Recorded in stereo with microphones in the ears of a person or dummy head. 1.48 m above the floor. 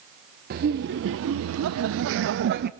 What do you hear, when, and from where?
0.5 s laughter: 50° right (ahead or behind), 1.0 m; by 2.7 s 55° right (ahead or behind), 1.0 m